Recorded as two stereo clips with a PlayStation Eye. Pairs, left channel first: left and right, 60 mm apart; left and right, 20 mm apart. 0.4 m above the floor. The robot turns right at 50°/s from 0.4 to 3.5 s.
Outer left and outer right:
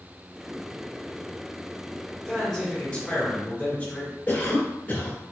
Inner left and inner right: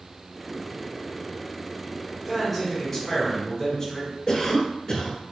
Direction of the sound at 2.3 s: 5° left (ahead or behind).